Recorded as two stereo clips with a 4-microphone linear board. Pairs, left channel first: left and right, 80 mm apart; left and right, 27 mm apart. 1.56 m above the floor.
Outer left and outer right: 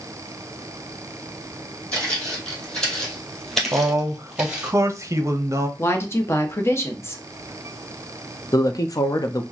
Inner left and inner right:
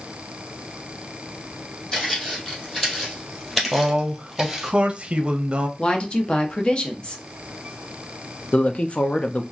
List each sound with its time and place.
1.9 s footsteps: 15° left (ahead or behind), 2.5 m; by 4.7 s 10° right (ahead or behind), 1.5 m
3.7 s a man speaking: 35° right (ahead or behind), 0.7 m
5.8 s a woman speaking: 30° left (ahead or behind), 0.9 m
8.5 s a woman speaking: 45° left (ahead or behind), 0.6 m